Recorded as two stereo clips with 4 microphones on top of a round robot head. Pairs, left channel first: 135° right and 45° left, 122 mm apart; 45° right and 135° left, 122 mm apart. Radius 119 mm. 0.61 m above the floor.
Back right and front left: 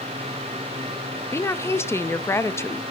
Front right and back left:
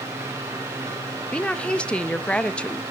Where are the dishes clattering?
I don't hear dishes clattering.